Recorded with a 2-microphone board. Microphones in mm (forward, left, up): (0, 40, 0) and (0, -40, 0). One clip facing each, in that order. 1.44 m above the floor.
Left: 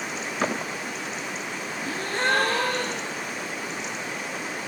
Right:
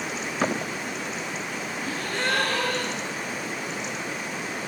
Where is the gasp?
30° left (ahead or behind), 0.5 m.